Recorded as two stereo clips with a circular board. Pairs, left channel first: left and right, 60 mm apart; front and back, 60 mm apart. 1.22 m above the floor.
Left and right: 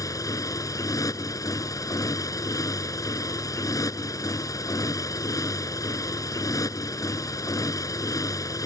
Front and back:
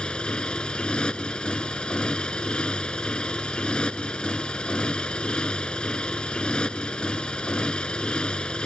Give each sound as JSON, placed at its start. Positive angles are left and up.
{"t": 0.0, "sound": "a motorcycle", "azimuth_deg": 75}